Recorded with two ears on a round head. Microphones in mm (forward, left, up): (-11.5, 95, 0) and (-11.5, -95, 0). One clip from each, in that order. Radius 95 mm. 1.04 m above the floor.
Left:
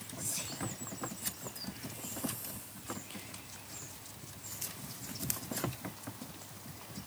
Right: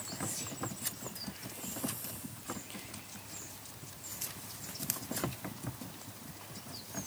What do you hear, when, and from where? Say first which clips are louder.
0.2 s whispering: left 3 dB; 60° left (ahead or behind), 1.7 m